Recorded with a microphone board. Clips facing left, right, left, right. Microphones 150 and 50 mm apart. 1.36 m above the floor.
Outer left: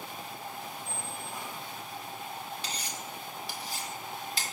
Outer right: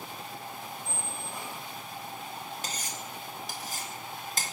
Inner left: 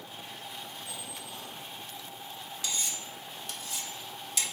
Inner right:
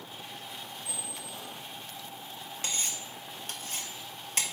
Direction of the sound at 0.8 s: 10° right (ahead or behind).